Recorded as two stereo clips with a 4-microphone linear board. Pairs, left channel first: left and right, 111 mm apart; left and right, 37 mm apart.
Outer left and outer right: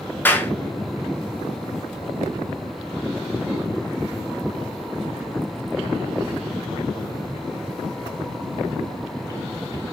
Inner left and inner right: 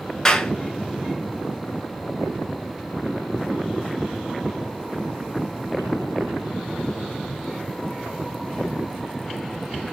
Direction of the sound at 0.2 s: 20° left (ahead or behind).